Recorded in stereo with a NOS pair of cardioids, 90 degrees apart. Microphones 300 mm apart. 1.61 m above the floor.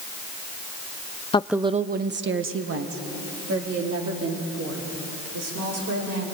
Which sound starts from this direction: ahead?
A woman speaking, at 1.3 s.